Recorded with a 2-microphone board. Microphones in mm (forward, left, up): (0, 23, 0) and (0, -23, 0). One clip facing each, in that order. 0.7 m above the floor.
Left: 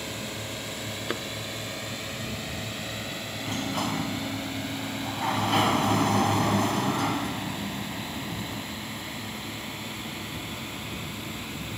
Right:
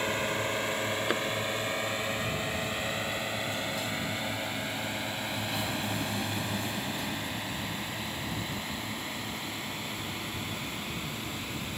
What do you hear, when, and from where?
0.0 s a drone: 35° right (ahead or behind); by 11.8 s centre (ahead or behind)
1.1 s a thud: 10° right (ahead or behind)
3.4 s a sliding door: 65° left (ahead or behind)